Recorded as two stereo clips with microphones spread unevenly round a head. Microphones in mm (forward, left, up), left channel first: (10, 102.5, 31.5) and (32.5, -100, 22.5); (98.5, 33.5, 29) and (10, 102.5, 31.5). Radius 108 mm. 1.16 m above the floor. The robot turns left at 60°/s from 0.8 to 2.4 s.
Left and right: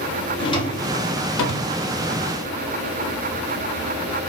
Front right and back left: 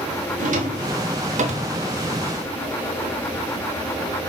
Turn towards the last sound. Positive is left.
turn(degrees=70)